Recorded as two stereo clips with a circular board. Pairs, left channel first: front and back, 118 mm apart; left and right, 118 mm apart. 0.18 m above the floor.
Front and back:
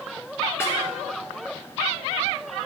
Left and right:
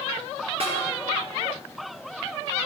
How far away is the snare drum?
About 1.7 m.